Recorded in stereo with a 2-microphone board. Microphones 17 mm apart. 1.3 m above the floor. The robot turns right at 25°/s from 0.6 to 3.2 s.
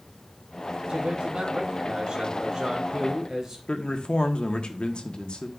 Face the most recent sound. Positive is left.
turn(degrees=70)  # may be behind; listen again after turning